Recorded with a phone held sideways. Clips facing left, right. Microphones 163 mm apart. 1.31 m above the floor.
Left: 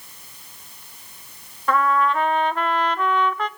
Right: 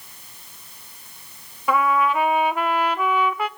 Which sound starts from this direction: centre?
A trumpet, at 1.7 s.